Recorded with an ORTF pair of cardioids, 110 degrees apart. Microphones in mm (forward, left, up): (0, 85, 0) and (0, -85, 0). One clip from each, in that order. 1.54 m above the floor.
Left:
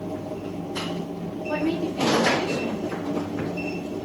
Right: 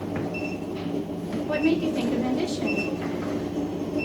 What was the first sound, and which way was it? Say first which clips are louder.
A woman speaking: right 2 dB; 40° right.